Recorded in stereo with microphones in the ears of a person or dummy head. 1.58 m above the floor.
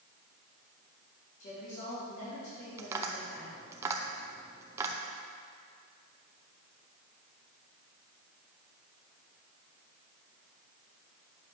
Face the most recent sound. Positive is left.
turn(degrees=-15)  # may be behind; listen again after turning